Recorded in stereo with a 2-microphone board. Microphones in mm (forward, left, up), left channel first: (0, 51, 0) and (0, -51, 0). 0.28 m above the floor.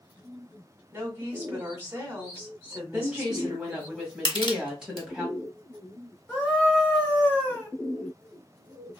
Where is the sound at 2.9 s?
10° right (ahead or behind), 1.8 m.